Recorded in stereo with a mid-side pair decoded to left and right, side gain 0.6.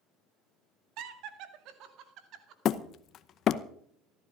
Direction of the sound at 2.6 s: 50° left.